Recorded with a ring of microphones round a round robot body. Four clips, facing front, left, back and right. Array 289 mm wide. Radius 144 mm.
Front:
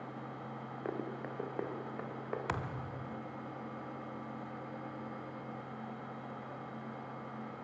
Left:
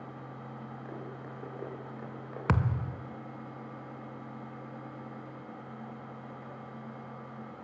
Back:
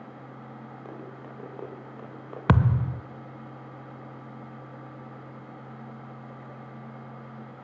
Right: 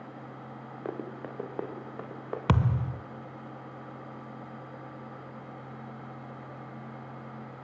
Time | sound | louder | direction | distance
0.8 | running footsteps | right 9 dB, front 5 dB | 70° right | 6 m
2.5 | a thud | right 3 dB, back 14 dB | 170° right | 0.6 m